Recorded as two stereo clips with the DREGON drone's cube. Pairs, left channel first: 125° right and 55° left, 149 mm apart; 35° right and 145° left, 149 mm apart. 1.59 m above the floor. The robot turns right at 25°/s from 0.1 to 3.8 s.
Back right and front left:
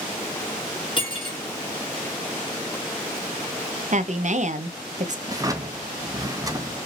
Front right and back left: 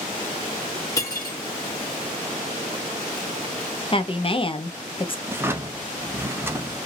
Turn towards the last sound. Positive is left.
turn(degrees=90)